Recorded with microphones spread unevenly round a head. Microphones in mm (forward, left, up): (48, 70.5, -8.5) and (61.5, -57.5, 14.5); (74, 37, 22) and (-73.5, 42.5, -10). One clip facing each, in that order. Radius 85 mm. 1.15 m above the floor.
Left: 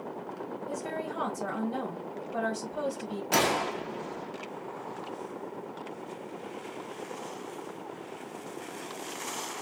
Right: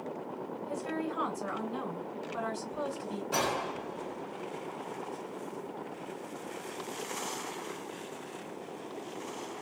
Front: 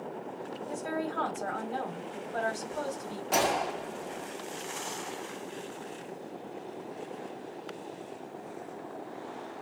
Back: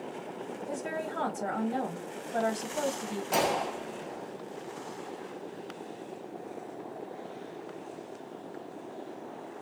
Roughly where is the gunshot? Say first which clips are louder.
Left 5 dB, front 1 dB; left.